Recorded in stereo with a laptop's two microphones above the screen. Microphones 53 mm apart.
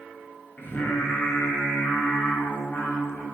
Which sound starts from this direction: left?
Singing, at 0.6 s.